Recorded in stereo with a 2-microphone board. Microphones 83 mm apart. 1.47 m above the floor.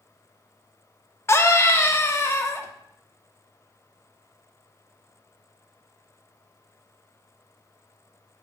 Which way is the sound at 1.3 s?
35° left (ahead or behind).